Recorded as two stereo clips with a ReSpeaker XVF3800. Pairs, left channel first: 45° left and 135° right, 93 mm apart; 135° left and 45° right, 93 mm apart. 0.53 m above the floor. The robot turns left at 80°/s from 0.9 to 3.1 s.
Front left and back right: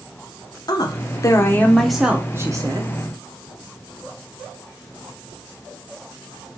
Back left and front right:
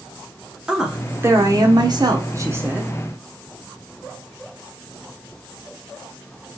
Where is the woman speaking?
35° left, 1.1 m; by 2.9 s 125° right, 1.1 m.